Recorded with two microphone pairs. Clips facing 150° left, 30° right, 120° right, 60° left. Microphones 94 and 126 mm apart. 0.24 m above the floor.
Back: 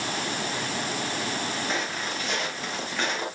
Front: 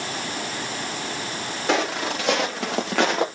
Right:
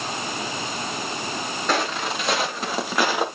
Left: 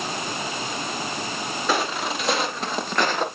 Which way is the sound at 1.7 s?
25° right.